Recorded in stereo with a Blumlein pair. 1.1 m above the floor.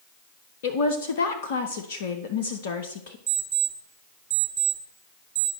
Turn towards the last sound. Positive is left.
turn(degrees=-50)